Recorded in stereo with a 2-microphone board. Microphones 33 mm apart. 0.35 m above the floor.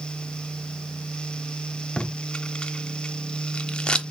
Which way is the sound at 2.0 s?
30° left (ahead or behind).